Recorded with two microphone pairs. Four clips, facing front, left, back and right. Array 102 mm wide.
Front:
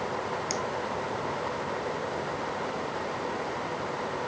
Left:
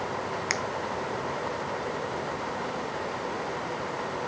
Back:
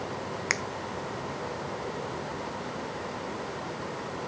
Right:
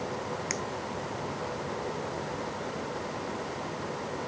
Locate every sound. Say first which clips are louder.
0.5 s a finger snap: left 4 dB, back 3 dB; 160° left